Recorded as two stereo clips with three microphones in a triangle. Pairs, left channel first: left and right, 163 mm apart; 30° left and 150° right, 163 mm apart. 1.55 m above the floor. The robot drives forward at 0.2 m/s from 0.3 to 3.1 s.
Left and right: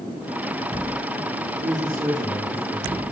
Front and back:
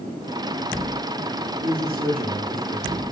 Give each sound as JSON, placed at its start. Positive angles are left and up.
{"t": 1.6, "sound": "a man speaking", "azimuth_deg": -120, "distance_m": 4.0}